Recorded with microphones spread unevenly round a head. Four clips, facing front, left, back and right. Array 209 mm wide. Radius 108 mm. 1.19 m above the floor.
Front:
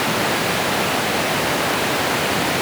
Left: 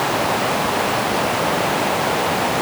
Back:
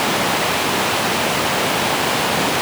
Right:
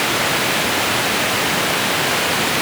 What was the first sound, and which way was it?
Only background noise.